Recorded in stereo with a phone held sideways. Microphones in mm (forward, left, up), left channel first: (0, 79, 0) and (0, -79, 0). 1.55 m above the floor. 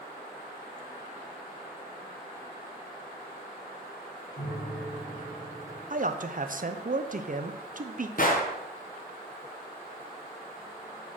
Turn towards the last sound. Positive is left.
turn(degrees=55)  # may be behind; listen again after turning